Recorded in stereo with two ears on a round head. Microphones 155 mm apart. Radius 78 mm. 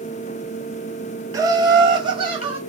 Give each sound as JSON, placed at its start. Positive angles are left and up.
{"t": 1.3, "sound": "laughter", "side_deg": -20, "distance_m": 0.6}